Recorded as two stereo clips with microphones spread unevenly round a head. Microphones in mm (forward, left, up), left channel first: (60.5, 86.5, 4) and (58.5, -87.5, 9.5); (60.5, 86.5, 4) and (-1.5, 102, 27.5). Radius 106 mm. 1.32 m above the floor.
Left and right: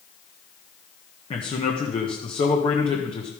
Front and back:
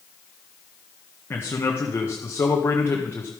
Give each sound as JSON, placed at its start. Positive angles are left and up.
{"t": 1.3, "sound": "a man speaking", "azimuth_deg": 30, "distance_m": 1.8}